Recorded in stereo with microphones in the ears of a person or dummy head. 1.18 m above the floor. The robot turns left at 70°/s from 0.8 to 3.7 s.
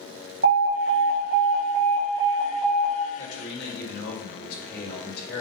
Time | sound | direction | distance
0.4 | an alarm | 60° right | 3.5 m
3.2 | a man speaking | 90° left | 1.8 m